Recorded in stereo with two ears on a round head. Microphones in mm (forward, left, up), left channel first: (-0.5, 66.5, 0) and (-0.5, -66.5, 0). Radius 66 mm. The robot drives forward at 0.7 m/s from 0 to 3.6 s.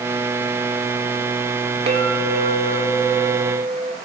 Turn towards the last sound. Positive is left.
turn(degrees=-60)  # may be behind; listen again after turning